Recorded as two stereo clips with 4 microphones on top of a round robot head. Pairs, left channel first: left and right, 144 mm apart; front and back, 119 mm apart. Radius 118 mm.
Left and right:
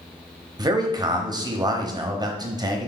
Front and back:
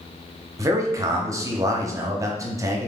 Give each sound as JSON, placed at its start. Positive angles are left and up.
{"t": 0.6, "sound": "a man speaking", "azimuth_deg": -135, "distance_m": 1.0}